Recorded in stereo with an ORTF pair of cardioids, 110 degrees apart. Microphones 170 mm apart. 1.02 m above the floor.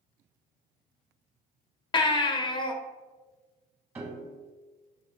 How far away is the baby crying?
About 0.5 m.